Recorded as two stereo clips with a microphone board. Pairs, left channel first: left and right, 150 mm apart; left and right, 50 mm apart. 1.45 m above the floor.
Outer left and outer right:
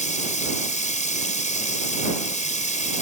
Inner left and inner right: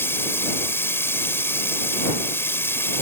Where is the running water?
55° left (ahead or behind).